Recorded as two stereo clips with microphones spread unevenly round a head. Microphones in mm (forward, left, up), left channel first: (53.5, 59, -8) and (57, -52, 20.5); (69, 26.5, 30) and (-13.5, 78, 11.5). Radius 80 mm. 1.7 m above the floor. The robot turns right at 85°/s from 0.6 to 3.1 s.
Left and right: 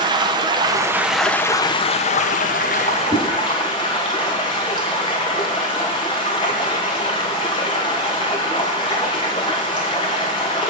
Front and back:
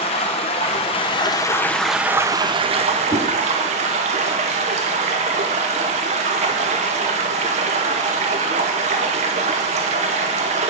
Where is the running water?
55° right, 1.0 m; by 10.7 s 160° left, 1.0 m.